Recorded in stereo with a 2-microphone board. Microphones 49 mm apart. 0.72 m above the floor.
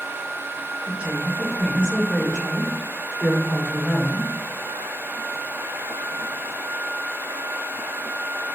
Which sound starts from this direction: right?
A woman speaking, at 0.9 s.